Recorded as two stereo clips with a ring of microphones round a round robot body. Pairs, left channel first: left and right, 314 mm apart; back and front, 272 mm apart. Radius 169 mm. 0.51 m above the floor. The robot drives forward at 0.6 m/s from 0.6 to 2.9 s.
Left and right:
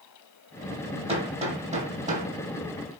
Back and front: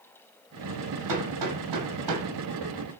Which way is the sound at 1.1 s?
15° right.